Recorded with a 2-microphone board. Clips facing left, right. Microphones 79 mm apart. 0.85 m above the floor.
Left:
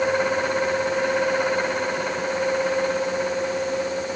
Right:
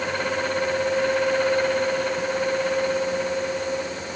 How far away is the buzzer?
I don't hear a buzzer.